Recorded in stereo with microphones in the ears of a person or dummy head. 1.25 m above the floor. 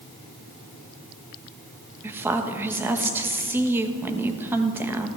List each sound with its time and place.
2.0 s a woman speaking: 15° right (ahead or behind), 1.1 m